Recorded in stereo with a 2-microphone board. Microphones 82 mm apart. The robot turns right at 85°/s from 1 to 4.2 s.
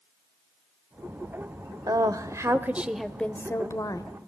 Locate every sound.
1.9 s a woman speaking: 100° right, 1.2 m; by 4.1 s 95° left, 1.2 m